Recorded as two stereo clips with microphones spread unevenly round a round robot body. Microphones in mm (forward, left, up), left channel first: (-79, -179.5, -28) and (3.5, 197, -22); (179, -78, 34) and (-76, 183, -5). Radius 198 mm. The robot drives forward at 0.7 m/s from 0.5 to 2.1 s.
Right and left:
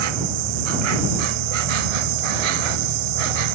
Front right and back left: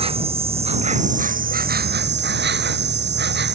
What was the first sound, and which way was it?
An insect, 60° left.